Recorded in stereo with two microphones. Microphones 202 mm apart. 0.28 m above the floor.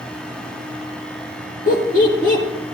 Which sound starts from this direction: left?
Laughter, at 1.7 s.